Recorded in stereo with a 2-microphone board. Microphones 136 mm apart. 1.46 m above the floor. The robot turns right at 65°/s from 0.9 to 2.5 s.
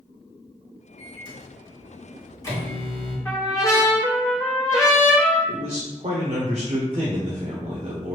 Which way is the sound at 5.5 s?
50° right (ahead or behind).